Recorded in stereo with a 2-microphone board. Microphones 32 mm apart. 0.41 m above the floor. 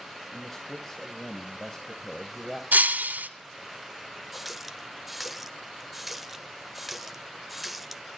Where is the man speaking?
15° left (ahead or behind), 1.9 m.